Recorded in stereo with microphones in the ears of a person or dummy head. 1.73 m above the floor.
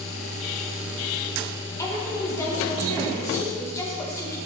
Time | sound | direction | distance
1.8 | a woman speaking | 15° left (ahead or behind) | 1.9 m